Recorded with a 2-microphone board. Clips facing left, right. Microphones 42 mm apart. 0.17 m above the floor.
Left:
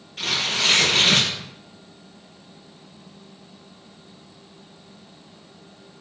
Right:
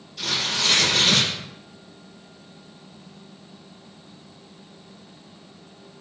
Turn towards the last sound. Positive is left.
turn(degrees=40)  # may be behind; listen again after turning